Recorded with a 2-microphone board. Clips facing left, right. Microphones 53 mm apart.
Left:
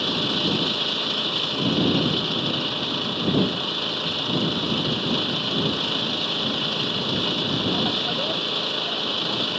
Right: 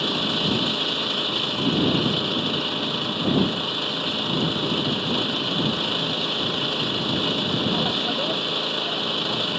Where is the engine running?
5° right (ahead or behind).